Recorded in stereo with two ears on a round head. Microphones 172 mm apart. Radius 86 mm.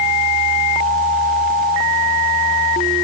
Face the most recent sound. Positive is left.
No sound to turn to.